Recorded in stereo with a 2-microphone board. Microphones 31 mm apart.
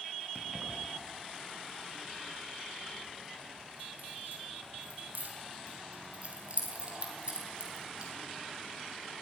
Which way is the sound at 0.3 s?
30° right (ahead or behind).